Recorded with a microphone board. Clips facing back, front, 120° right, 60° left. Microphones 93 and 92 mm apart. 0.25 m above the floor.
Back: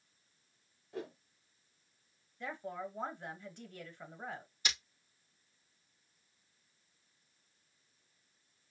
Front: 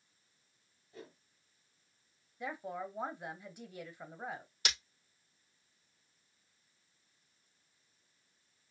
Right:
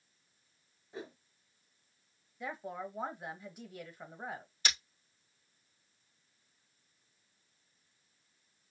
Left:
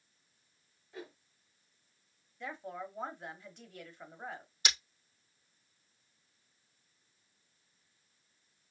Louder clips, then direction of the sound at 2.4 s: Front 1 dB, right 1 dB; 55° right.